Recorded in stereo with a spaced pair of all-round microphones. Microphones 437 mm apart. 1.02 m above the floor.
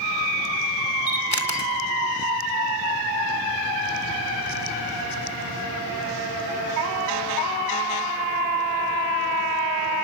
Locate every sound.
1.1 s a camera shutter: 50° left (ahead or behind), 3 m